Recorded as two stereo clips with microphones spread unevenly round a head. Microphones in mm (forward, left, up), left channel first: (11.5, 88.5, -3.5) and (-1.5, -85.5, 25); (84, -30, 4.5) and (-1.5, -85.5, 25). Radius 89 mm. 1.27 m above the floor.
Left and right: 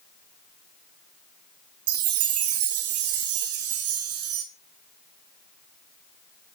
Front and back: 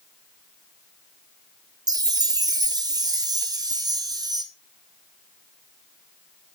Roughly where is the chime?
Right.